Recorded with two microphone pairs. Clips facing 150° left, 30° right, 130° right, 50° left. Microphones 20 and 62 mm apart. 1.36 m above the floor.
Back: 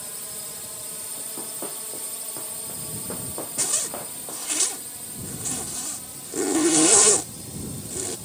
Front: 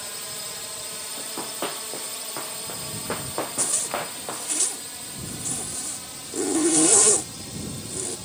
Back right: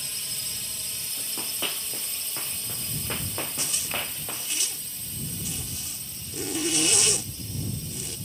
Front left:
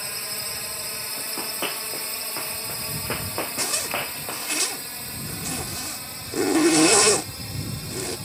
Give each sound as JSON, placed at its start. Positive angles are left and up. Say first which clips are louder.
{"t": 0.0, "sound": "a drone", "louder": "front 4 dB, front left 6 dB", "azimuth_deg": 25}
{"t": 1.2, "sound": "running footsteps", "louder": "front 6 dB, front left 4 dB", "azimuth_deg": -15}
{"t": 3.6, "sound": "a zipper", "louder": "back 2 dB, front left 5 dB", "azimuth_deg": 80}